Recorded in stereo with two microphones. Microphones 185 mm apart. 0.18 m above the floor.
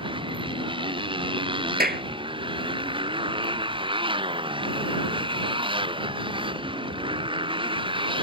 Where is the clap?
55° right (ahead or behind).